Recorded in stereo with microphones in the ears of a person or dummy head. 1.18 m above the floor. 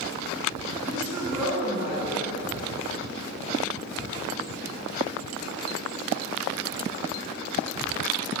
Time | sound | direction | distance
0.9 | a woman speaking | 10° right (ahead or behind) | 10 m